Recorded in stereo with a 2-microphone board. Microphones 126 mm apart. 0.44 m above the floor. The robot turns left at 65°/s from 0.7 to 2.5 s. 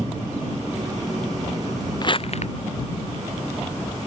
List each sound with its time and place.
2.0 s crumpling: 35° left (ahead or behind); by 2.5 s 65° left (ahead or behind)